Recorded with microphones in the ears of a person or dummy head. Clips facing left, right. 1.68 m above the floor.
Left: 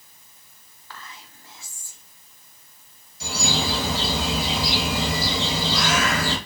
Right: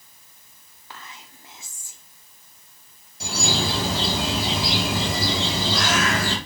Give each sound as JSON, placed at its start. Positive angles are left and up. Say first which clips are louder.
{"t": 0.9, "sound": "whispering", "louder": "even", "side_deg": -15, "distance_m": 0.6}
{"t": 3.2, "sound": "a bird", "louder": "right 1 dB", "side_deg": -45, "distance_m": 1.1}